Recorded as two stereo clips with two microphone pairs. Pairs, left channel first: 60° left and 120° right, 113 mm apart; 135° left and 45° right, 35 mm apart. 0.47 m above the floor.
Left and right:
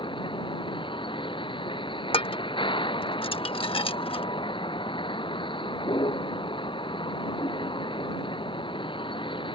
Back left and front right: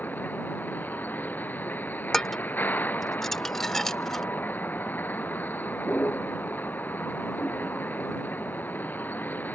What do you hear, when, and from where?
0.0 s a vehicle: 105° left
2.1 s dishes clattering: 55° left